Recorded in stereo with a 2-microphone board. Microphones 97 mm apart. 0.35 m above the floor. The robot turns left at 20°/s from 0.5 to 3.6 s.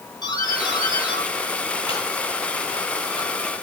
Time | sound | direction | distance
0.2 | a doorbell | 50° left (ahead or behind) | 8.5 m